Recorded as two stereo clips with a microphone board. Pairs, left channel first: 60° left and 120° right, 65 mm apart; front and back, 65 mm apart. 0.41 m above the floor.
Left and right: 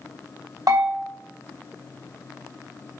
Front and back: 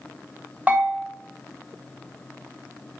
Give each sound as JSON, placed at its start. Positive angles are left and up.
{"t": 0.7, "sound": "a bell", "azimuth_deg": -115, "distance_m": 2.0}